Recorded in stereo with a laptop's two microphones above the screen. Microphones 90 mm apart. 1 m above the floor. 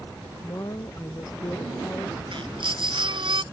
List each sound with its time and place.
0.4 s a woman speaking: 40° left (ahead or behind)
2.3 s a baby crying: 65° right (ahead or behind)